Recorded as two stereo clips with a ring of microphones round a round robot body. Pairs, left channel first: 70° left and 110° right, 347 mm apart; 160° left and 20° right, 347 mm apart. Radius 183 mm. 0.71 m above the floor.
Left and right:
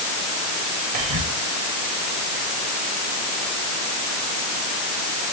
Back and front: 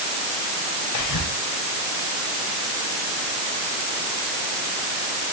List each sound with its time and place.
0.9 s whispering: 165° right, 4.5 m